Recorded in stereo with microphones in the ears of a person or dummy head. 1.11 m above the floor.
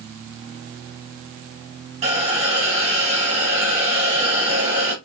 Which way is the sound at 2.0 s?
35° right (ahead or behind).